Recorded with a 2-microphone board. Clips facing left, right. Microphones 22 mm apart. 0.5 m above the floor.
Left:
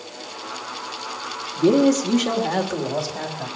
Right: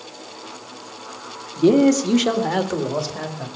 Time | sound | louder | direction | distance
1.6 | a man speaking | right 2 dB | 25° right (ahead or behind) | 1.1 m